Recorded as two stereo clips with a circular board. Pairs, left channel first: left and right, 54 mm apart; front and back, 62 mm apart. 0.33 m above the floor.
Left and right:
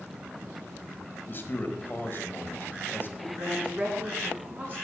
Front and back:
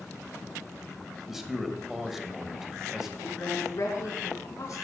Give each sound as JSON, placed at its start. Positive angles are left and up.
{"t": 1.3, "sound": "a man speaking", "azimuth_deg": 100, "distance_m": 1.3}
{"t": 3.2, "sound": "a woman speaking", "azimuth_deg": -35, "distance_m": 4.0}